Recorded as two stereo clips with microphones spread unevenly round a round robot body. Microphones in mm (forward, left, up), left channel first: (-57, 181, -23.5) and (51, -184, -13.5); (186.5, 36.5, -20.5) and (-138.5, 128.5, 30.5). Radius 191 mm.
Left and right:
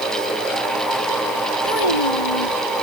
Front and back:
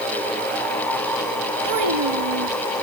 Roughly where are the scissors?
I don't hear scissors.